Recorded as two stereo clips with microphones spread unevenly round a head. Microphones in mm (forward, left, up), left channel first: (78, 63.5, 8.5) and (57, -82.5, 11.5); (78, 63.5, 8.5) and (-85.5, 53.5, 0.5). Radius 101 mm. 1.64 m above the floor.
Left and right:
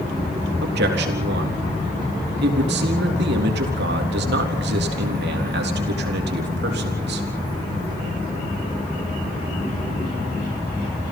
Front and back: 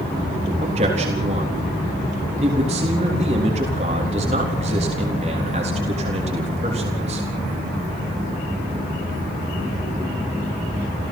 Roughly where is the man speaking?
Behind right.